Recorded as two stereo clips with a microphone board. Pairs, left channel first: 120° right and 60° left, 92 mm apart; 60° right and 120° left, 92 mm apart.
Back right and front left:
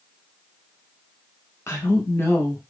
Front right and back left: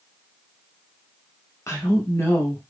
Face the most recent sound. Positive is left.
turn(degrees=-85)